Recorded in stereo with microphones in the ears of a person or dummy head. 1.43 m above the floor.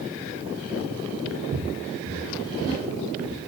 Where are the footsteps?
45° right (ahead or behind), 2 m; by 3.4 s 5° right (ahead or behind), 2.5 m.